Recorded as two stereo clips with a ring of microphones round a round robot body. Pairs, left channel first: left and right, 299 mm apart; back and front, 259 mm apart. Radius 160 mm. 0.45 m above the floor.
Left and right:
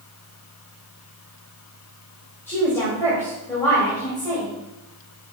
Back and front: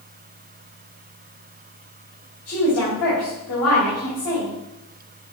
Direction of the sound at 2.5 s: 170° left.